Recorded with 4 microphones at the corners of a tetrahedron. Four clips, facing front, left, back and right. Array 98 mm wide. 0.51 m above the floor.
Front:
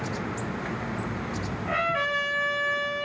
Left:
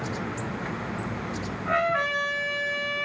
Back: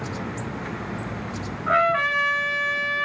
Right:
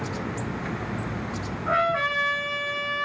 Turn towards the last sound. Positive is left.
turn(degrees=-165)